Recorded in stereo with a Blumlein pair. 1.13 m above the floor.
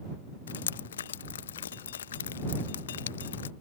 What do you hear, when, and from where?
0.5 s dripping: 65° left